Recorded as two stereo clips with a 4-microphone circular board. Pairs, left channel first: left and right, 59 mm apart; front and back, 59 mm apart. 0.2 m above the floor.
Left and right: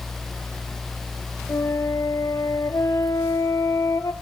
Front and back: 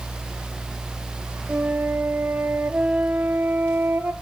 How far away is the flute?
About 1.1 m.